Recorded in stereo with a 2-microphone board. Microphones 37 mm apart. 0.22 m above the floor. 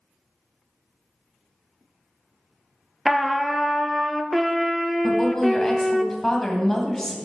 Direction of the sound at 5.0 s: 10° left (ahead or behind).